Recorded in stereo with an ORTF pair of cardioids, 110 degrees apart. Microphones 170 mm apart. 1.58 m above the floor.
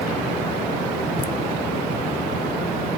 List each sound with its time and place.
1.2 s laughter: 30° left, 0.8 m